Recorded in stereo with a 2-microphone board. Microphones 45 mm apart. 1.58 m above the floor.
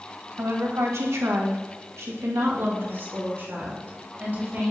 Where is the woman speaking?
65° right (ahead or behind), 2.0 m; by 4.7 s 40° right (ahead or behind), 4.5 m.